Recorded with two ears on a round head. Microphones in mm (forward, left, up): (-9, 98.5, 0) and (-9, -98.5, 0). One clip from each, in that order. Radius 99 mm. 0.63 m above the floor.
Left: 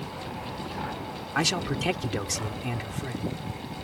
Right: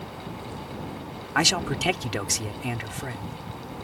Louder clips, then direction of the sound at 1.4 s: Right 4 dB; 25° right (ahead or behind).